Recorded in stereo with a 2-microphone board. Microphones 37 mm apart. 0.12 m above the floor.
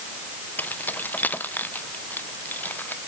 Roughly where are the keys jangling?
Left.